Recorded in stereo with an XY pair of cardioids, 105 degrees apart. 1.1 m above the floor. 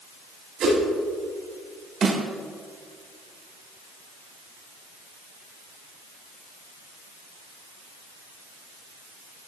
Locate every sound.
0.6 s a whoosh: 65° right, 6.5 m
2.0 s a snare drum: 45° right, 3.5 m